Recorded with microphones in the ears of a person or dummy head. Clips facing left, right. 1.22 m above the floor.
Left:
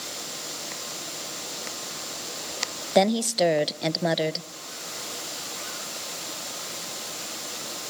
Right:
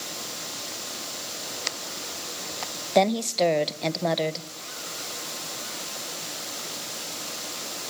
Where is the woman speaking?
10° left (ahead or behind), 0.6 m.